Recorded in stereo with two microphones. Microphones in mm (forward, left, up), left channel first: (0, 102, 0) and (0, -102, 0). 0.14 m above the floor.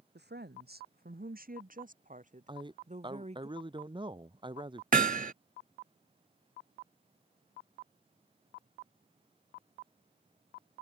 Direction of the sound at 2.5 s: 25° right (ahead or behind).